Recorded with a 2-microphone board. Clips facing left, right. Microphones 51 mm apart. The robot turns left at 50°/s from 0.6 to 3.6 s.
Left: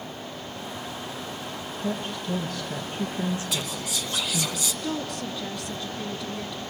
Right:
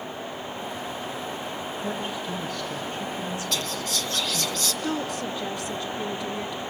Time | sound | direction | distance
1.8 | a woman speaking | 145° right | 2 m
3.5 | whispering | 10° left (ahead or behind) | 1.1 m
4.8 | a woman speaking | 15° right (ahead or behind) | 1.4 m